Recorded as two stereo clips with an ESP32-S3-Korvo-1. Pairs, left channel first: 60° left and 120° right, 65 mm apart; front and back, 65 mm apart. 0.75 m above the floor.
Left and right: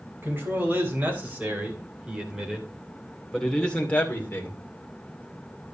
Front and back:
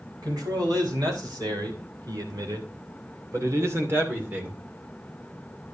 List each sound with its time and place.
0.2 s a man speaking: straight behind, 4 m; by 4.6 s 115° left, 2.5 m